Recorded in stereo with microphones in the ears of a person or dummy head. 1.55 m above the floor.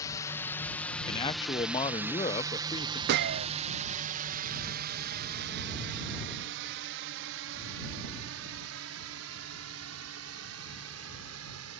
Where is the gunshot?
60° right (ahead or behind).